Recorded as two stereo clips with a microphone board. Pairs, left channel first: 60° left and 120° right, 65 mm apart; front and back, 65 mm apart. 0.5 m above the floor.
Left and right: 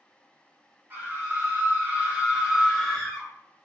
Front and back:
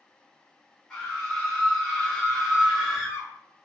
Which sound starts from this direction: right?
A scream, at 0.9 s.